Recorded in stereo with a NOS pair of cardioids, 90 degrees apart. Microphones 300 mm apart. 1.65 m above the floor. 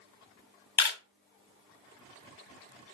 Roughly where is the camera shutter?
Ahead left.